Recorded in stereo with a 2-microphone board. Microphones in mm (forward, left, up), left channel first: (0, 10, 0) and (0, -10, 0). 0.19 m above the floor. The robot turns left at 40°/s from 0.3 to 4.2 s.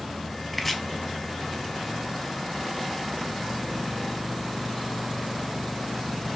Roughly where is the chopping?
Centre.